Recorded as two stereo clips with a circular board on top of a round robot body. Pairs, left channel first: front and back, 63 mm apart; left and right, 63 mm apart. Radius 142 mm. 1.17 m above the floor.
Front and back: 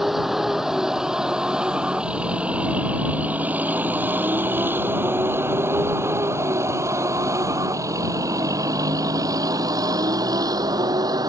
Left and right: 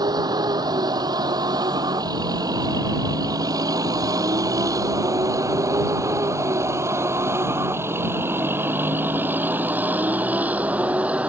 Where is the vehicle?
95° right; by 11.3 s 160° right.